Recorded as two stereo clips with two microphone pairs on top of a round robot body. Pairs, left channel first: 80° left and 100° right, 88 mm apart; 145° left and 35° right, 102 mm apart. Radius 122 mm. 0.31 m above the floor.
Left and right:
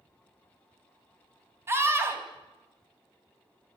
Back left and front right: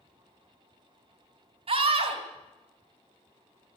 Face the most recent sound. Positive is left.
turn(degrees=-40)